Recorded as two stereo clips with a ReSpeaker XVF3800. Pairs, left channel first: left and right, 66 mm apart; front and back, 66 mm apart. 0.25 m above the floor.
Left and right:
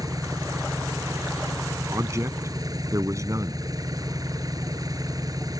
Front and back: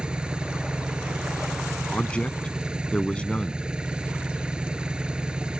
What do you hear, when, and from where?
0.0 s an engine running: 105° right
1.9 s a man speaking: 70° right